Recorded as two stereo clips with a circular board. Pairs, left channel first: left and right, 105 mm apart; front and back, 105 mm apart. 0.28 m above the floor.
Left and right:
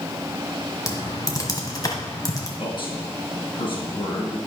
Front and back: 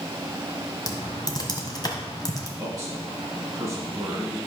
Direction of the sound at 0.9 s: 40° left.